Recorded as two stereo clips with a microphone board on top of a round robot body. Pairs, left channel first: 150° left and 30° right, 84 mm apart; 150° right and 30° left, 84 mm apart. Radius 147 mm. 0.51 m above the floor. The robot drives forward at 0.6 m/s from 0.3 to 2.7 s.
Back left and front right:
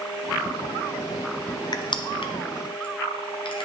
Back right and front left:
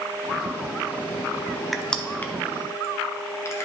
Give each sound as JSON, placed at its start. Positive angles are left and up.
{"t": 1.7, "sound": "crushing", "azimuth_deg": 120, "distance_m": 0.6}